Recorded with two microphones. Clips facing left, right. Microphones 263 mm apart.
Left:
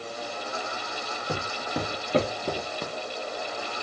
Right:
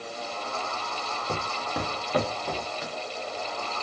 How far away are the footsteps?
About 1.6 m.